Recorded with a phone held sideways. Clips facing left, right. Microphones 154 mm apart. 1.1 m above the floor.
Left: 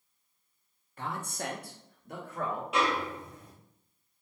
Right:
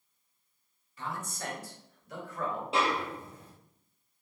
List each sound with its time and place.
1.0 s a man speaking: 55° left (ahead or behind), 0.7 m; by 2.6 s 50° left (ahead or behind), 1.2 m
2.7 s a snare drum: 30° right (ahead or behind), 0.7 m